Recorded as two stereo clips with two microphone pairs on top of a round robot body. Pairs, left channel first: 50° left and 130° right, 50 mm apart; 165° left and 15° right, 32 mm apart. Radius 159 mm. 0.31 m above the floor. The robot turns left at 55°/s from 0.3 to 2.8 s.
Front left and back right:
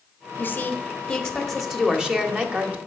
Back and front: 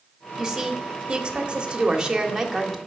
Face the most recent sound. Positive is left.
turn(degrees=-105)